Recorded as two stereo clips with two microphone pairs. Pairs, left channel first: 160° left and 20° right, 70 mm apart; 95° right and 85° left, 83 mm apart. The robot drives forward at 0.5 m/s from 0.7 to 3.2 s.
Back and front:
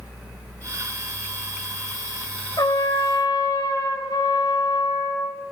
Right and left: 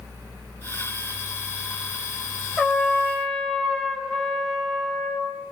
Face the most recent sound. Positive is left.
turn(degrees=180)